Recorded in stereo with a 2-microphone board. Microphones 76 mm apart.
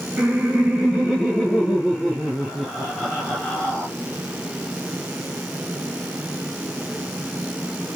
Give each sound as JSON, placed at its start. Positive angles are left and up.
{"t": 0.2, "sound": "laughter", "side_deg": -10, "distance_m": 1.9}